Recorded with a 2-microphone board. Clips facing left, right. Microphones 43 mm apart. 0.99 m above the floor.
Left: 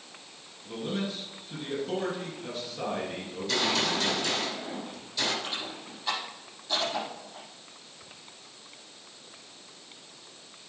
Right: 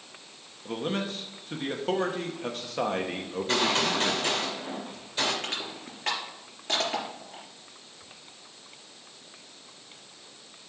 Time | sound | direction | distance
0.7 | a man speaking | 60° right (ahead or behind) | 1.1 m
3.3 | a gunshot | 40° right (ahead or behind) | 2.5 m
5.4 | crushing | 65° right (ahead or behind) | 3.5 m